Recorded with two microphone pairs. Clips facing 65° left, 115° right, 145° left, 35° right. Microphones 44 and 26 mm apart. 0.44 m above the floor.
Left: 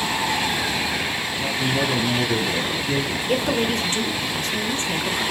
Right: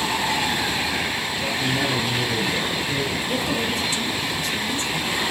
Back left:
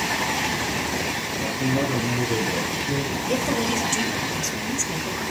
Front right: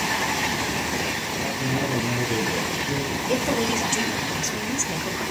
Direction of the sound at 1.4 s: 75° left.